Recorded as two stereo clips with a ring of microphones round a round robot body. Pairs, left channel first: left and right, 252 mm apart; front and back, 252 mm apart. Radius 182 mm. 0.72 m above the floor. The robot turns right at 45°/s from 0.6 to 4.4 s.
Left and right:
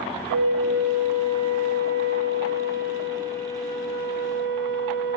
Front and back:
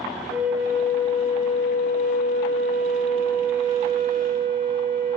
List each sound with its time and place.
0.3 s a flute: 100° right, 6 m; by 5.2 s 70° left, 6 m